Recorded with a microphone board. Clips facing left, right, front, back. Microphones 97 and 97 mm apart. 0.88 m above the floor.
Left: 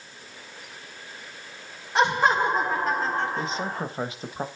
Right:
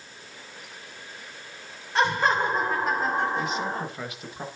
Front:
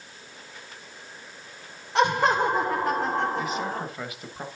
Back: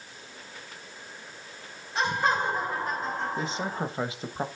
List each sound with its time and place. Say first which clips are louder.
1.9 s laughter: left 2 dB, front 5 dB; 15° left, 2.5 m; by 3.9 s 35° right, 1.7 m
3.4 s a man speaking: right 1 dB, front 2 dB; 130° left, 1.2 m